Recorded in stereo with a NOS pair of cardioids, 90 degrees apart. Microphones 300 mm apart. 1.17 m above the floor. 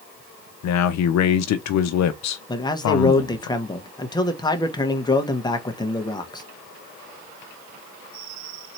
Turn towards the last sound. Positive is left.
turn(degrees=15)